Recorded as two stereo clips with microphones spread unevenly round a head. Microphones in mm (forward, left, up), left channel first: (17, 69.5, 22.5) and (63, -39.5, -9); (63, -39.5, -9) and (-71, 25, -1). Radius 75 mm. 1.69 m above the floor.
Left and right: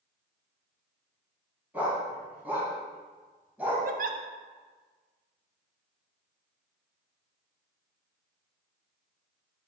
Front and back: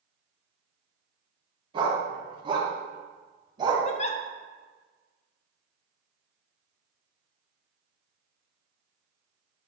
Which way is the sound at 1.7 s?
155° right.